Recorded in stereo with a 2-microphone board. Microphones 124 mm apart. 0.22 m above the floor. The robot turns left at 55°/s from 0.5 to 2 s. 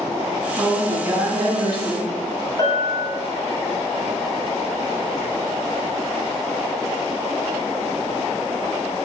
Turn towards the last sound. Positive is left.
turn(degrees=35)  # may be behind; listen again after turning